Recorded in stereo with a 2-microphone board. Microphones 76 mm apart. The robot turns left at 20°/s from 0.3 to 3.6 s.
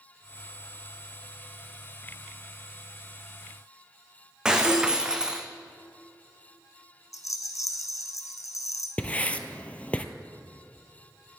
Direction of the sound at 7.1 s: 50° left (ahead or behind).